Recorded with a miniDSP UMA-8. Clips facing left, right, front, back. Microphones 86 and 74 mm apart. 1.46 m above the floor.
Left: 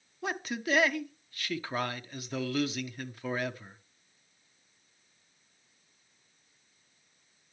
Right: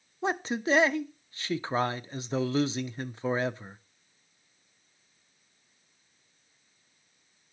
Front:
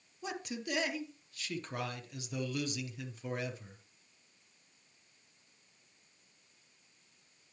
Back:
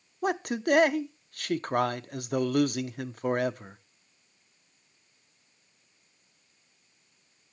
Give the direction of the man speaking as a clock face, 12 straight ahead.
5 o'clock.